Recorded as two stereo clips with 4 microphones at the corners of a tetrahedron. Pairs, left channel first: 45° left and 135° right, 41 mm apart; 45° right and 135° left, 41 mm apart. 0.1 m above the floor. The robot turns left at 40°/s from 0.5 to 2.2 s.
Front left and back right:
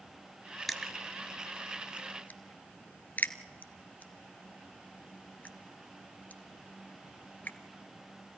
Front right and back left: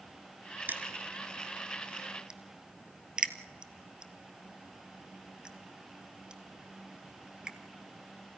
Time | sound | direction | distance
0.7 | crushing | 135° left | 1.3 m